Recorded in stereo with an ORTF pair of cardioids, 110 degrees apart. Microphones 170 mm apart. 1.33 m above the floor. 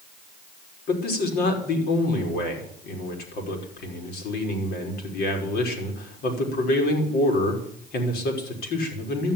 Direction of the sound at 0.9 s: 70° left.